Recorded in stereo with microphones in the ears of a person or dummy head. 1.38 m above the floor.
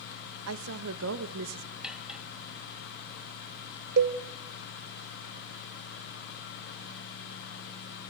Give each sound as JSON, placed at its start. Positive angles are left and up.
{"t": 0.5, "sound": "a woman speaking", "side_deg": -80, "distance_m": 1.4}
{"t": 1.8, "sound": "cutlery clinking", "side_deg": 0, "distance_m": 1.1}
{"t": 4.0, "sound": "a cowbell", "side_deg": -65, "distance_m": 1.1}